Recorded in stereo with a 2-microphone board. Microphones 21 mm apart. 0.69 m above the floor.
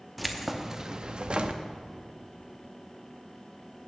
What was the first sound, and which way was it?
Keys jangling, 5° left (ahead or behind).